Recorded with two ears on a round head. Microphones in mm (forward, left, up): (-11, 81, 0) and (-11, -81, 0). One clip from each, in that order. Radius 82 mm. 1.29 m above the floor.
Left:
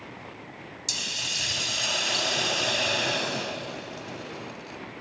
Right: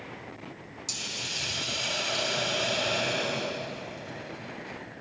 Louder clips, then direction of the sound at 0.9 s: Left 5 dB; 30° left (ahead or behind).